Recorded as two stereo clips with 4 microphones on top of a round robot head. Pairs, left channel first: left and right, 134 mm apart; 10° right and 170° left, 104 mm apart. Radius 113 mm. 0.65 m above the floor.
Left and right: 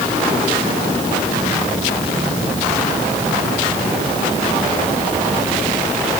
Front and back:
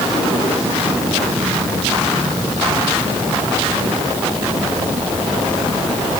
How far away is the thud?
I don't hear a thud.